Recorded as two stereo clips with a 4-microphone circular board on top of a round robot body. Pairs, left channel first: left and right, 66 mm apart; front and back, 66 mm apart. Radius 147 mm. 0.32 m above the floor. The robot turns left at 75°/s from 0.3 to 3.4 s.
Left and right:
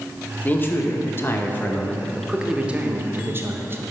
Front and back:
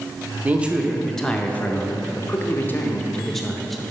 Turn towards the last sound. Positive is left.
turn(degrees=-85)